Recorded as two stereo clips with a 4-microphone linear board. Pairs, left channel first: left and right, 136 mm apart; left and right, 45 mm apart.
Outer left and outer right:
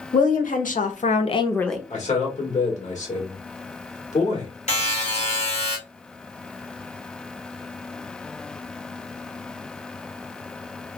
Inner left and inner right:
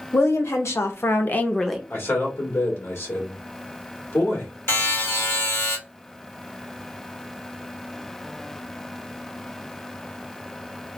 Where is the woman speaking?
80° left, 1.3 m; by 1.8 s 5° right (ahead or behind), 0.5 m.